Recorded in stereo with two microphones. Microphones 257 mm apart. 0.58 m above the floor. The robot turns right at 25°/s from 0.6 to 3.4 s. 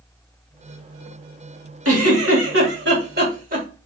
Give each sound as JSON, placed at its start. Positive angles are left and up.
{"t": 1.9, "sound": "a giggle", "azimuth_deg": -75, "distance_m": 2.0}